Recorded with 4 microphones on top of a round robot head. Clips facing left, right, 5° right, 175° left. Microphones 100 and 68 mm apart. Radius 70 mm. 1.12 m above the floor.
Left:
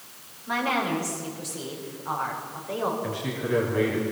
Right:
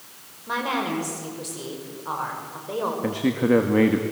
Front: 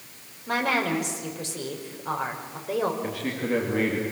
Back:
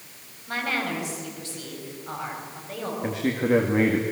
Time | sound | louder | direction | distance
0.5 | a woman speaking | even, front 3 dB | 20° right | 5.5 m
3.0 | a man speaking | right 8 dB, back 4 dB | 115° right | 2.5 m